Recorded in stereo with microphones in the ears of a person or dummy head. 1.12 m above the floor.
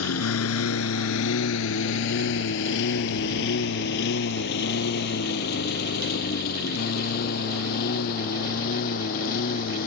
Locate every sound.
0.0 s a lawn mower: 80° left; by 9.9 s 45° left (ahead or behind)